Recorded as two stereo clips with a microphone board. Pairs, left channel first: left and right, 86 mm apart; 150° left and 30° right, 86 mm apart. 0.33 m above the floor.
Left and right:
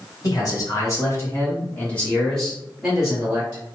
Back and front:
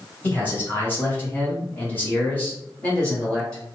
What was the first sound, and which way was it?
A man speaking, 90° left.